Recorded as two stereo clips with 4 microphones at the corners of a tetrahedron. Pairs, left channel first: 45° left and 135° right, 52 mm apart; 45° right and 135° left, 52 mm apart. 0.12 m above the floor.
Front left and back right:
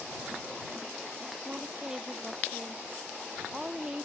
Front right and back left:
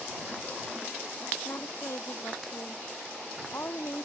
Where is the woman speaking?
60° right.